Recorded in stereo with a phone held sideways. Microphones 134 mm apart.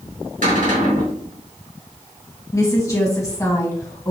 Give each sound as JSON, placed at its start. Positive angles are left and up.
{"t": 0.4, "sound": "a cupboard door", "side_deg": -80, "distance_m": 2.5}
{"t": 2.5, "sound": "a woman speaking", "side_deg": 25, "distance_m": 1.4}